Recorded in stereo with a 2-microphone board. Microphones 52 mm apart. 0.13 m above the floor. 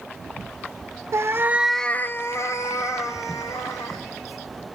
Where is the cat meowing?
60° right (ahead or behind), 0.9 m; by 4.0 s 80° left, 3 m.